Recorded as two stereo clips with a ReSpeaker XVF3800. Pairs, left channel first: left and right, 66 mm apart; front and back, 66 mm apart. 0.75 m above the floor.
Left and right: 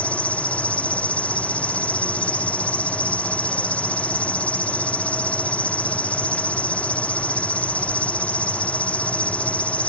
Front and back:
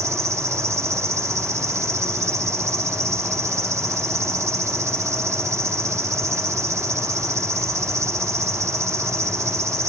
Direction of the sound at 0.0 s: 155° left.